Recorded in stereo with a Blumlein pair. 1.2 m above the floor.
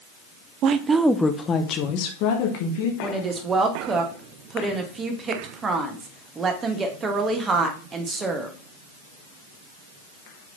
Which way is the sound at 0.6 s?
35° right.